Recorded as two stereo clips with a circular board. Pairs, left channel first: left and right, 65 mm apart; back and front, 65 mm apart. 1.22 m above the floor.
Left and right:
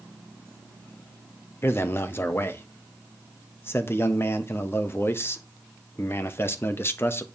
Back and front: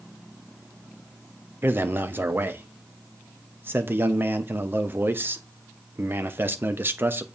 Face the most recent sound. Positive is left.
turn(degrees=50)